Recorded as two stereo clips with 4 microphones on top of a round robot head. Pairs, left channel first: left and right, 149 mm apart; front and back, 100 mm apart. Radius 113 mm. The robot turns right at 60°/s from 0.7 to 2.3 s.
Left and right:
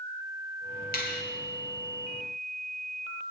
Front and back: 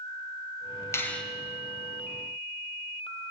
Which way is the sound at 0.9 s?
60° left.